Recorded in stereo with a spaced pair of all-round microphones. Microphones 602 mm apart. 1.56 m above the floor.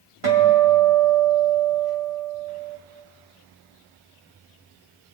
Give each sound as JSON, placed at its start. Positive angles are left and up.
{"t": 0.2, "sound": "a guitar", "side_deg": -60, "distance_m": 2.0}